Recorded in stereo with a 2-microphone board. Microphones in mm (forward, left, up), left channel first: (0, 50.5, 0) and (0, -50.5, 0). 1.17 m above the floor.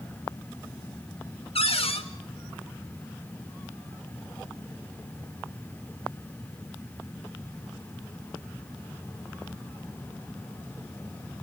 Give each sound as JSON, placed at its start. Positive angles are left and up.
{"t": 1.6, "sound": "a cupboard door", "side_deg": 70, "distance_m": 2.0}